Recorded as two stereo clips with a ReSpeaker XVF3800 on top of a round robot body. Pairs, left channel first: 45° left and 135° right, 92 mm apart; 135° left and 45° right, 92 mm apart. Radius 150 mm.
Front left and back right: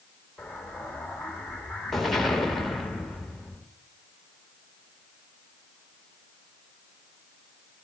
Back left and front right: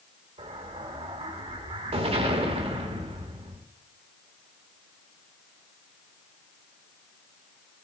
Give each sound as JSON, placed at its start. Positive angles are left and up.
{"t": 0.4, "sound": "an explosion", "azimuth_deg": -40, "distance_m": 1.2}